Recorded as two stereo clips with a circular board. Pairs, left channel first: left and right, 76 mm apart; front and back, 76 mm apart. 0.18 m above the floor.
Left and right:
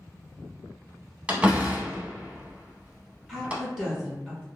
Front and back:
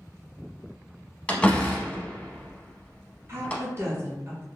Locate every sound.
1.3 s a door slam: 45° right, 0.7 m
3.3 s a woman speaking: 165° right, 1.7 m